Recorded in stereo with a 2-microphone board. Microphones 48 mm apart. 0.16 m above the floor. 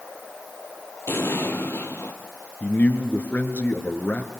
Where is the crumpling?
No crumpling in this recording.